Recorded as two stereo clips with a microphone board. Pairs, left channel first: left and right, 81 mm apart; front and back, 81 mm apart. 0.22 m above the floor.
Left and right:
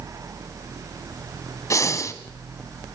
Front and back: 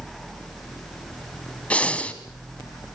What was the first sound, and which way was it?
Breathing, 65° left.